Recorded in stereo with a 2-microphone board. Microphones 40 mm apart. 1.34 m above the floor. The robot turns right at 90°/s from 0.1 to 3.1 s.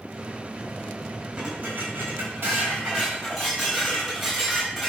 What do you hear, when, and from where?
1.4 s dishes clattering: 165° right, 5 m; by 4.9 s 10° right, 5 m